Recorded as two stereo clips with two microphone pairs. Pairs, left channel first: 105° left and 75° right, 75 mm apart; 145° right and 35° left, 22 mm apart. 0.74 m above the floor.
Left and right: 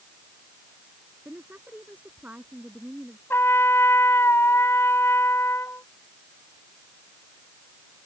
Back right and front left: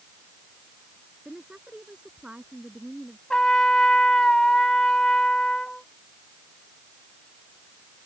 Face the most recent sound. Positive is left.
turn(degrees=165)